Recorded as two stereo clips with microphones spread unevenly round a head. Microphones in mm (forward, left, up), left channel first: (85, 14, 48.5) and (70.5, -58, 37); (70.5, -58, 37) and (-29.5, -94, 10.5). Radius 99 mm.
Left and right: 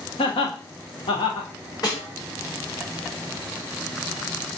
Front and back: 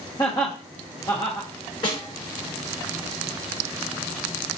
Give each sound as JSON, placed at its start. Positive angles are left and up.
{"t": 0.2, "sound": "laughter", "azimuth_deg": 90, "distance_m": 0.7}
{"t": 1.8, "sound": "a snare drum", "azimuth_deg": 45, "distance_m": 2.5}